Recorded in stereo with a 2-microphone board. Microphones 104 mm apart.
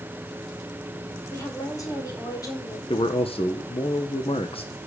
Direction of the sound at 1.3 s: 30° left (ahead or behind).